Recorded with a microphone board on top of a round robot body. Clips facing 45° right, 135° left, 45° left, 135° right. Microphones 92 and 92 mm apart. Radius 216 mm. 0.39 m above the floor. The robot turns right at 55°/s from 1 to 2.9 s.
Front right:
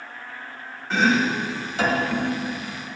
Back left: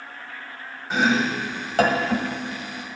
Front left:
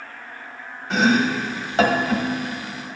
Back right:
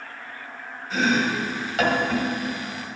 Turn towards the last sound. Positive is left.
turn(degrees=165)